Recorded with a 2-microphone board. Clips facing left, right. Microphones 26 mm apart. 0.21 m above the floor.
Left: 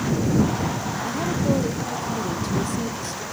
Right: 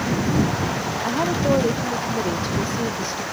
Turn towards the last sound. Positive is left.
turn(degrees=-35)  # may be behind; listen again after turning